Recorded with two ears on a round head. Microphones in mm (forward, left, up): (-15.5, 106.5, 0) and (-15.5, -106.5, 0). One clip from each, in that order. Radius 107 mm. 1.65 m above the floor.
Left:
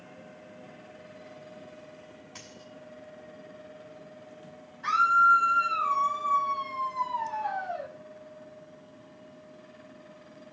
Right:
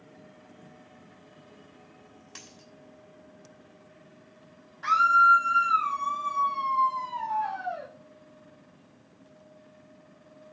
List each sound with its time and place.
2.4 s a dropped coin: 80° right, 5.5 m
4.8 s a scream: 50° right (ahead or behind), 1.9 m